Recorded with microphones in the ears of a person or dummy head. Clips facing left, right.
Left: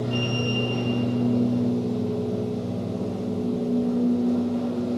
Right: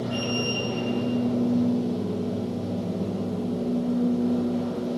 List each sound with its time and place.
0.0 s a machine running: 10° right (ahead or behind), 5 m